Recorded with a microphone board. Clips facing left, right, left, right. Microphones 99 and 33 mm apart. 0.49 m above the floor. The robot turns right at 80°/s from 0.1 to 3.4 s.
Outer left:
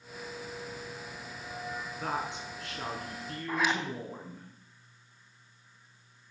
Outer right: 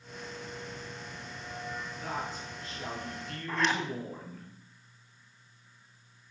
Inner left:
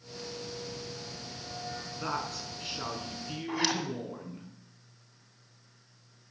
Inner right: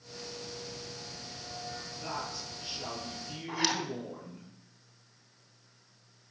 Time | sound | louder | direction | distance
2.0 | a woman speaking | outer left 4 dB, inner left 4 dB | 50° left | 5.5 m
3.5 | a zipper | even, inner left 1 dB | 5° left (ahead or behind) | 2.5 m